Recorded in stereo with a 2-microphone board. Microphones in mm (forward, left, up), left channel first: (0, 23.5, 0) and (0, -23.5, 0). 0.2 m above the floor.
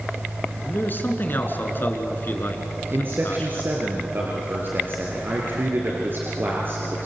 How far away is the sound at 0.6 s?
About 3 m.